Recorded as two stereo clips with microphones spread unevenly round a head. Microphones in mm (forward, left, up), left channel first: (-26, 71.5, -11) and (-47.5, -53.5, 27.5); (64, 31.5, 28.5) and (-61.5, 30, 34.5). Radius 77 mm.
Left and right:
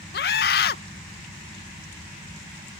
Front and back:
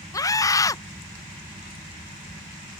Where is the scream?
65° left.